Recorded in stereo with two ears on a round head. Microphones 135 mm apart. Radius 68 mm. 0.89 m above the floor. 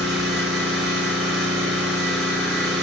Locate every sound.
0.0 s an engine running: centre (ahead or behind), 1.5 m